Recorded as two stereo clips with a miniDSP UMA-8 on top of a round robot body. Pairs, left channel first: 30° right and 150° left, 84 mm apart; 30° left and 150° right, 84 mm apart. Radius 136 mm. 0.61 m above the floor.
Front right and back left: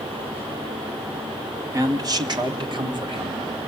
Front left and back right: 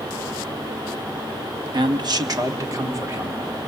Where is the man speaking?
165° right, 1.4 m; by 3.7 s 150° left, 2.5 m.